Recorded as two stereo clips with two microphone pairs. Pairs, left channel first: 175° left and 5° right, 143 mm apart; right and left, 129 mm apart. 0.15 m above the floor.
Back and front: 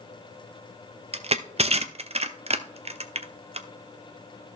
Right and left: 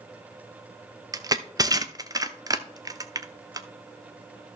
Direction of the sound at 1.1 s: 35° left.